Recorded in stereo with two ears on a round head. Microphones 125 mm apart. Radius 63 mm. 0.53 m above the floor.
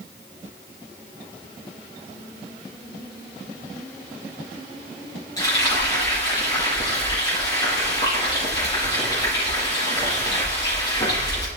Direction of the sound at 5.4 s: 25° left (ahead or behind).